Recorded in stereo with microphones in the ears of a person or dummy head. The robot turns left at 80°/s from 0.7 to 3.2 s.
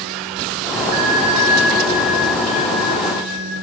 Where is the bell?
145° right, 1.8 m; by 3.5 s 30° left, 1.8 m.